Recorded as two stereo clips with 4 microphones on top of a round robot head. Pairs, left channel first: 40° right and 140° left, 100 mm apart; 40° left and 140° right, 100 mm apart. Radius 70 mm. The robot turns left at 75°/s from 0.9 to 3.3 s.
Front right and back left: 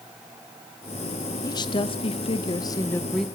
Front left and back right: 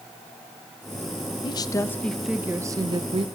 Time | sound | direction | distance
1.4 | a woman speaking | 10° left | 0.7 m